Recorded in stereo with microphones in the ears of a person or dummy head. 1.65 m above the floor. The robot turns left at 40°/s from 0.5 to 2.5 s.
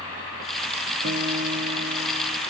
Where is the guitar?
55° right, 0.9 m; by 2.4 s 110° right, 0.9 m.